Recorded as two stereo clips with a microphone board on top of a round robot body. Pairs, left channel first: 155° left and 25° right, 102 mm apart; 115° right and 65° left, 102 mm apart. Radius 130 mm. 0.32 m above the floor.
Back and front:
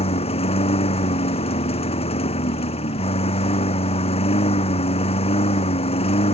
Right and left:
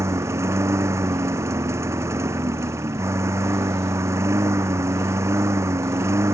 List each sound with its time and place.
0.0 s a lawn mower: 130° left